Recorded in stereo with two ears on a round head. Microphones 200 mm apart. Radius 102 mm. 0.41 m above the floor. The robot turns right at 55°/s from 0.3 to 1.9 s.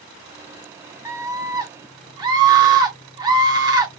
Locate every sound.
1.1 s a scream: 15° right (ahead or behind), 0.8 m; by 3.9 s 20° right (ahead or behind), 0.8 m